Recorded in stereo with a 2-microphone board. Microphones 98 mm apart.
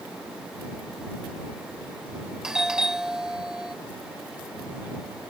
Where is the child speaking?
No child speaking in this recording.